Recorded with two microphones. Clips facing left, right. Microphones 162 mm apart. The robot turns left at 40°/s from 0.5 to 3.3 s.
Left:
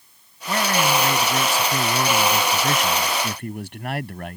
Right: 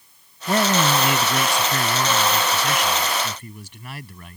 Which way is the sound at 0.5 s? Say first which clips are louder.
Right 2 dB; 145° right.